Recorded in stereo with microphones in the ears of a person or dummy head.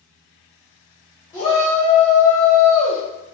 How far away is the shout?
About 0.9 m.